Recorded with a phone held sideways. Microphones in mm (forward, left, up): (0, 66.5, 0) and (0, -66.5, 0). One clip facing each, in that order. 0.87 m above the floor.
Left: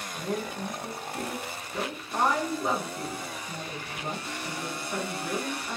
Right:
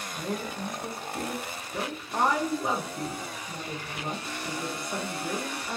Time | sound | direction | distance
0.1 | a woman speaking | 15° right (ahead or behind) | 0.8 m